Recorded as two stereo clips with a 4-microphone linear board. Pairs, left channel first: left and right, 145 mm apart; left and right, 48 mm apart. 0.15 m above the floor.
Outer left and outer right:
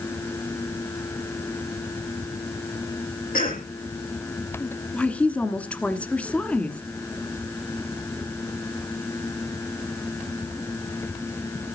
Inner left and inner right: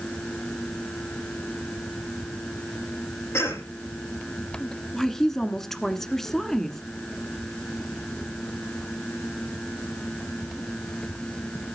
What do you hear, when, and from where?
3.3 s a cough: 80° left, 5.5 m
4.9 s a woman speaking: 10° left (ahead or behind), 1.4 m